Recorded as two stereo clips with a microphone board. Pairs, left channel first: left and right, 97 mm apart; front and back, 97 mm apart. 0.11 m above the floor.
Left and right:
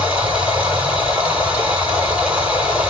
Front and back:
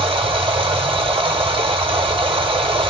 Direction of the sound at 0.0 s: 165° right.